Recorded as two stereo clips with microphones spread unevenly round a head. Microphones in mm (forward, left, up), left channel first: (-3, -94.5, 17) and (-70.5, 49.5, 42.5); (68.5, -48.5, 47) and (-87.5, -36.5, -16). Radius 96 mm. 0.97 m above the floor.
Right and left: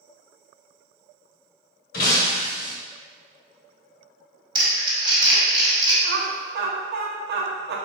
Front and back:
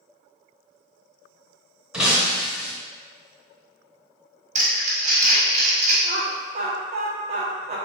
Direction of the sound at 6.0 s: 130° left.